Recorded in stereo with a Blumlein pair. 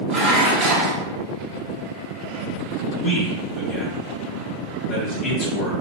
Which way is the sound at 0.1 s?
30° right.